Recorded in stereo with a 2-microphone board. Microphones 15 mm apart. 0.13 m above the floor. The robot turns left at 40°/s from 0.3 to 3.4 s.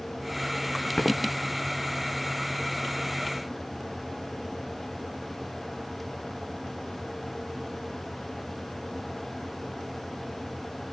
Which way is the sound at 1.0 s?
75° left (ahead or behind).